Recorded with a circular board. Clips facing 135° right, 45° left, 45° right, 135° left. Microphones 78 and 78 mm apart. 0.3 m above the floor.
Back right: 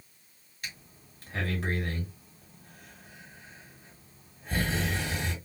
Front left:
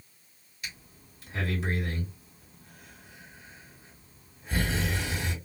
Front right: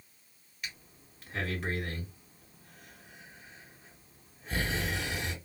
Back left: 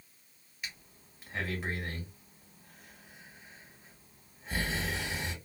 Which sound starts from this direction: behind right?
Breathing, at 0.6 s.